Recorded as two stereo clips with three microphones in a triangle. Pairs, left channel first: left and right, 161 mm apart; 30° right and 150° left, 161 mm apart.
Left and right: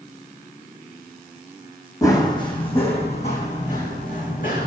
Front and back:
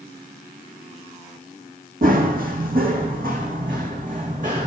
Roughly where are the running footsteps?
Behind left.